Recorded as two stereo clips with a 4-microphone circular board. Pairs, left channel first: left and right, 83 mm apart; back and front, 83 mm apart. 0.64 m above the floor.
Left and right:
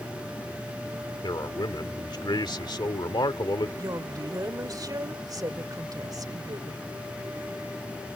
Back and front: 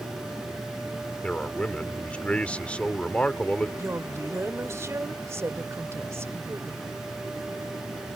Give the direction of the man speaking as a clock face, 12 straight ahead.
8 o'clock.